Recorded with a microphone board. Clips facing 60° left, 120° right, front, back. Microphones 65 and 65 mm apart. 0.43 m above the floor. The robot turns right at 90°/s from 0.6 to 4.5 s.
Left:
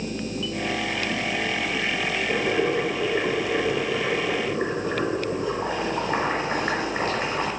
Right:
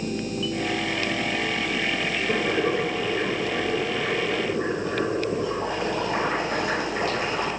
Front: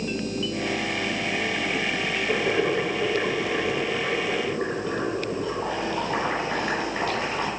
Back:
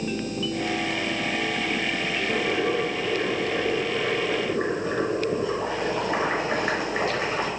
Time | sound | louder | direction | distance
2.3 | boiling | even, front 2 dB | 90° right | 6 m